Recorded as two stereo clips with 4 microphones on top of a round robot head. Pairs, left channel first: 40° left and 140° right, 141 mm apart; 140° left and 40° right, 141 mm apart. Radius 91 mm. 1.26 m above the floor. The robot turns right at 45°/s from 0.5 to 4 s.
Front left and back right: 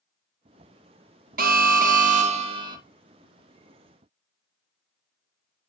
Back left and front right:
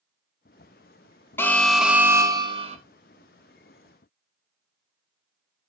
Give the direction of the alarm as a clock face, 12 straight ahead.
5 o'clock.